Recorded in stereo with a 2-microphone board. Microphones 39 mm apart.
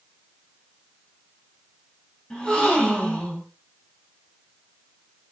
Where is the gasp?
20° left (ahead or behind), 3 m.